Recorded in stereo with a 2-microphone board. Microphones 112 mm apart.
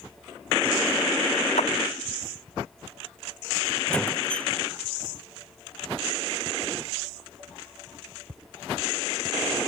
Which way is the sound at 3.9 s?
10° left (ahead or behind).